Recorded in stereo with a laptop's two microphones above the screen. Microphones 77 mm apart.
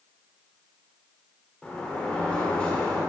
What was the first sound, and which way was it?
A sliding door, 20° left (ahead or behind).